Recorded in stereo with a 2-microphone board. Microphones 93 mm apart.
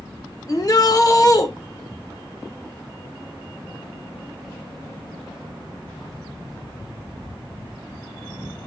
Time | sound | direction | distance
0.5 | a shout | 40° left (ahead or behind) | 1.3 m